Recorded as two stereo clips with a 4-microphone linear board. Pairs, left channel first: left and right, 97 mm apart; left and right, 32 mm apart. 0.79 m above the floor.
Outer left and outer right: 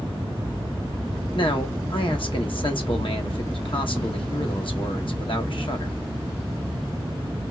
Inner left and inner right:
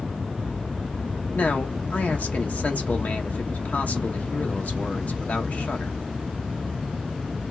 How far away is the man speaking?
About 1.0 m.